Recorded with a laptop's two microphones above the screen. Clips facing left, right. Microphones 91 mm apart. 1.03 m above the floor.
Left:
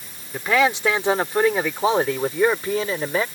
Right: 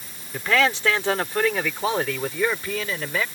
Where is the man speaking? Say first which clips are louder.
Left 2 dB; 15° left (ahead or behind); by 3.2 s 30° left (ahead or behind).